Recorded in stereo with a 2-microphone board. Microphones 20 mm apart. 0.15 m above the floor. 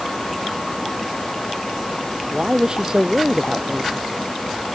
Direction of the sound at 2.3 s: 30° right (ahead or behind).